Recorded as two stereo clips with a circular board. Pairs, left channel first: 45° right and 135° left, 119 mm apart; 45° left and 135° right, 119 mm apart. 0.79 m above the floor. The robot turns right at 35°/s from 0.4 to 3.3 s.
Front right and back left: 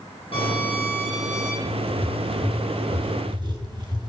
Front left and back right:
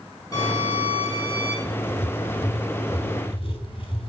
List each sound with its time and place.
0.3 s a violin: 10° right, 7.5 m; by 1.6 s 30° left, 7.5 m
1.6 s writing: 25° left, 2 m; by 4.1 s 85° left, 2 m